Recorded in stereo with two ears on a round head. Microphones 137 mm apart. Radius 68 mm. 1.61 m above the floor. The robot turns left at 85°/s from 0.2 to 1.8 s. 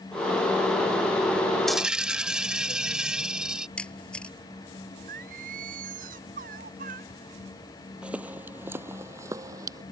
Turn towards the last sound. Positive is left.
turn(degrees=-25)  # may be behind; listen again after turning